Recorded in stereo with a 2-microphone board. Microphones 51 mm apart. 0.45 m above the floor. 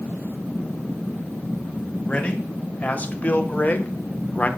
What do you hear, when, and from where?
2.1 s a man speaking: 30° left (ahead or behind), 2 m